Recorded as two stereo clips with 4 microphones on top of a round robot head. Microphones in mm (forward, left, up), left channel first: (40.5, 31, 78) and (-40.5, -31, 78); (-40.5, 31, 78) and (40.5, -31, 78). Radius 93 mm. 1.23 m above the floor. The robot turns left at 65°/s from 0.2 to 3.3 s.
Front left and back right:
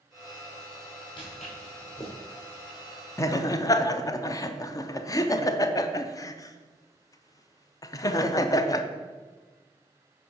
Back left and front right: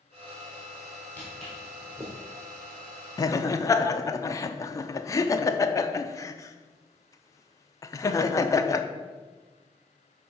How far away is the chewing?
I don't hear chewing.